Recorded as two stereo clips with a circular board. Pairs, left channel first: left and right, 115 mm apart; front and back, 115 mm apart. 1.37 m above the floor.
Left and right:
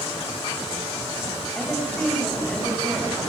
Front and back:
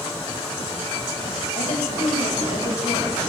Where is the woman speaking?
10° left, 7.5 m.